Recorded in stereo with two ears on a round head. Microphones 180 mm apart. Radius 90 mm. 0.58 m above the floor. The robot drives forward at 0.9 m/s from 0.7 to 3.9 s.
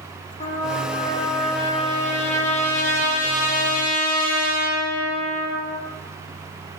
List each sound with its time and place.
0.4 s a trumpet: 30° left (ahead or behind), 8 m; by 5.8 s 45° left (ahead or behind), 5.5 m